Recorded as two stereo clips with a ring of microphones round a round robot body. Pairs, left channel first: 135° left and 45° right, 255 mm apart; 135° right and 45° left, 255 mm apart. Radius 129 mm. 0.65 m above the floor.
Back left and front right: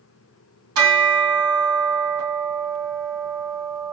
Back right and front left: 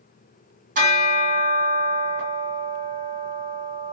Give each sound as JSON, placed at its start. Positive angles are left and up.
{"t": 0.8, "sound": "a bell", "azimuth_deg": -15, "distance_m": 2.5}